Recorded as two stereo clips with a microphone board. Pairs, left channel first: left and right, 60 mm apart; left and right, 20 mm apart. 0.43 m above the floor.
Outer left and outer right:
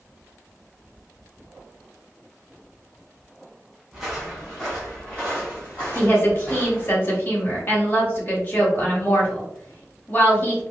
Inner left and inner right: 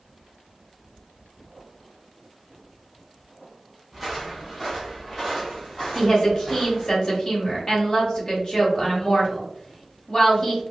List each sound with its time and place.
3.9 s footsteps: 5° right (ahead or behind), 1.8 m; by 7.0 s 35° left (ahead or behind), 2.5 m
6.0 s a woman speaking: 35° left (ahead or behind), 1.4 m